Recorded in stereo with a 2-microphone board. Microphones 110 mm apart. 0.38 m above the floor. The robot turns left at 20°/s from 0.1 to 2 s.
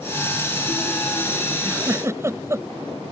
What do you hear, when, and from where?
1.6 s a giggle: 30° right (ahead or behind); by 2.7 s 25° right (ahead or behind)